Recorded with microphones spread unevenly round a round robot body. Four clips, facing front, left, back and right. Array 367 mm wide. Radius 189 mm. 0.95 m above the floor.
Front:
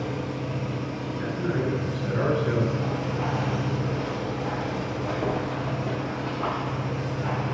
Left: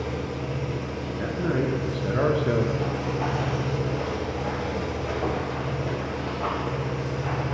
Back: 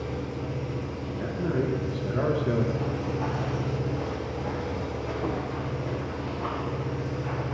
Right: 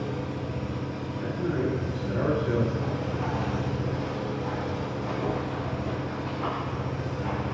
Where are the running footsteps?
90° left, 1.3 m; by 7.5 s 30° left, 3.5 m.